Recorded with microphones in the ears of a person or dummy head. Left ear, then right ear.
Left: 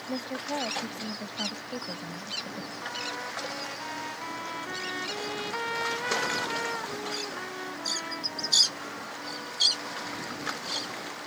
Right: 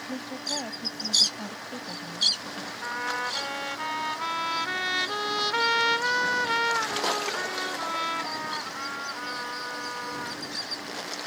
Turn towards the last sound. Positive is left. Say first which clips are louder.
# right 6 dB
turn(degrees=-65)  # may be behind; listen again after turning